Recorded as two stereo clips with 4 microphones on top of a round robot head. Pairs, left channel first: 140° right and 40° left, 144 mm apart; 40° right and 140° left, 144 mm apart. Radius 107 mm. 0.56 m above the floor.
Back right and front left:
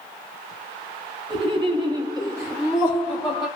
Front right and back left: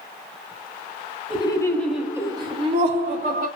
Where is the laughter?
Straight ahead, 1.1 m; by 3.5 s 130° left, 1.7 m.